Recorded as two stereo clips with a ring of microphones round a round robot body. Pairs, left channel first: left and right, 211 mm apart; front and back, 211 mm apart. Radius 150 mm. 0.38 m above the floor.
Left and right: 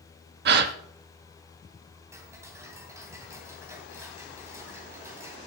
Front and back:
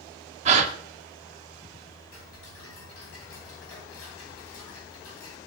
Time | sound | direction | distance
0.5 | a gasp | 120° right | 0.5 m
2.1 | ticking | 15° right | 2.5 m